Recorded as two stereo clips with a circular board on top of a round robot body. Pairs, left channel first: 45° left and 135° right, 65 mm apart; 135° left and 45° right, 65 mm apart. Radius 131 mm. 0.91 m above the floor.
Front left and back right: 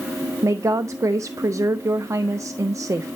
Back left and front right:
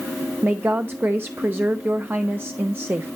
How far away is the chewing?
No chewing in this recording.